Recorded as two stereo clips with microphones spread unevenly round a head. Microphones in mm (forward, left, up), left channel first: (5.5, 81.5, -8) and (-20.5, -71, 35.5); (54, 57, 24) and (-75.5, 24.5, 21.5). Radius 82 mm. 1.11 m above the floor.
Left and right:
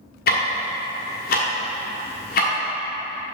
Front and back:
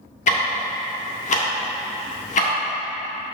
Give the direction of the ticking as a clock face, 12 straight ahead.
11 o'clock.